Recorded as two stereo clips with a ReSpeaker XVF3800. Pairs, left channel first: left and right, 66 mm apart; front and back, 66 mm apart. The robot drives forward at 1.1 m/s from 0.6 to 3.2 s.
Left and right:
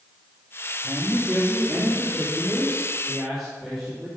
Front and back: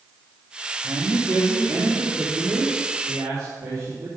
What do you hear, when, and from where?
0.8 s a man speaking: 160° right, 1.8 m; by 4.1 s 170° right, 4.5 m